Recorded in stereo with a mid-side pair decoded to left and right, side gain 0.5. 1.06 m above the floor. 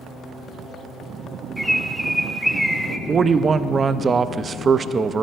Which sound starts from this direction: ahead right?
A man speaking, at 3.1 s.